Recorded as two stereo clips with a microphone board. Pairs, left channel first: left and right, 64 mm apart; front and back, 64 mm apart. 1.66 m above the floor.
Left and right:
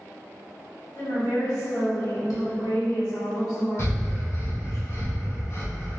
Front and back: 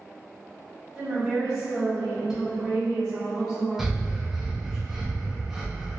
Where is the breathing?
95° left, 0.7 m.